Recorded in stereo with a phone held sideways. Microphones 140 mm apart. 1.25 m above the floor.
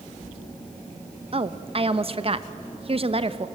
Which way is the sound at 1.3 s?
45° right (ahead or behind).